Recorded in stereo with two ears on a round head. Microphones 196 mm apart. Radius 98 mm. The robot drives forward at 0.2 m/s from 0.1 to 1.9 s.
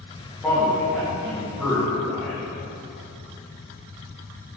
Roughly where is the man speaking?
Centre.